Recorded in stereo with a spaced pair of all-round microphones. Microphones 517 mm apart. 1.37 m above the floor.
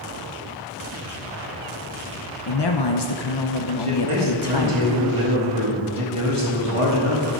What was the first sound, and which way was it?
A man speaking, 50° left (ahead or behind).